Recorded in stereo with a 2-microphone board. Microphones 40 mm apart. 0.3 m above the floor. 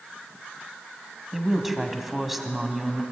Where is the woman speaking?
5° right (ahead or behind), 2.5 m.